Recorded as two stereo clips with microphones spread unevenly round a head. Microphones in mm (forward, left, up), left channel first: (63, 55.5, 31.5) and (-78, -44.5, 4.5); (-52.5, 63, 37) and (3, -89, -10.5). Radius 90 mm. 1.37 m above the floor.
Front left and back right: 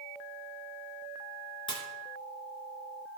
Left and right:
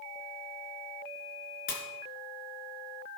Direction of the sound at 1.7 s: 90° left.